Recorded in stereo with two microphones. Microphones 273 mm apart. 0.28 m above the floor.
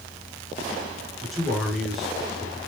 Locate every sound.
1.2 s a man speaking: centre (ahead or behind), 3 m